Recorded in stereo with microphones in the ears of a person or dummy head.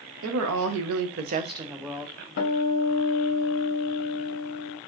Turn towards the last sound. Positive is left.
turn(degrees=50)  # may be behind; listen again after turning